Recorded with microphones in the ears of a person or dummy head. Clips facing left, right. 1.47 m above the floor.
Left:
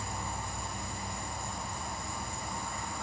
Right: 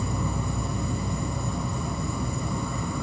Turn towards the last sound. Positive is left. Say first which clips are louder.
# right 10 dB
turn(degrees=-65)  # may be behind; listen again after turning